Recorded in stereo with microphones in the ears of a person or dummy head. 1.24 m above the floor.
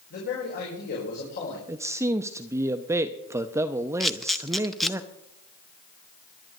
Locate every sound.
0.1 s a man speaking: 55° left (ahead or behind), 4.5 m
1.7 s a man speaking: 15° right (ahead or behind), 0.6 m
4.0 s a camera shutter: centre (ahead or behind), 0.6 m